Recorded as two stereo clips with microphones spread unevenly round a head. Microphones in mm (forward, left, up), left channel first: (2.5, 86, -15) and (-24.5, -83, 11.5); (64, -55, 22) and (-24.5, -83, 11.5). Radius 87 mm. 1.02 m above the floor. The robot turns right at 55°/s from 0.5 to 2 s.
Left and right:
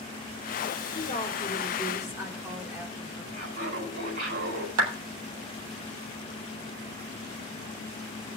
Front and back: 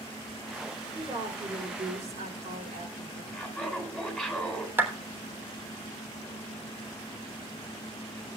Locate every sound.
0.9 s a woman speaking: 125° left, 2.5 m; by 3.2 s 175° right, 2.5 m
3.3 s laughter: 75° right, 7 m
4.8 s a clap: 95° right, 3.5 m